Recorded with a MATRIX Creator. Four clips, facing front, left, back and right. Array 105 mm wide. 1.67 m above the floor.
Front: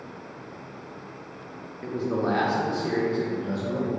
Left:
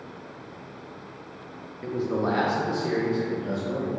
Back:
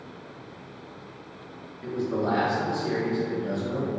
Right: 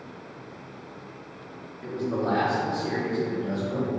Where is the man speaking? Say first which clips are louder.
Left 1 dB, front 1 dB; 35° left, 0.7 m; by 3.9 s 50° left, 2 m.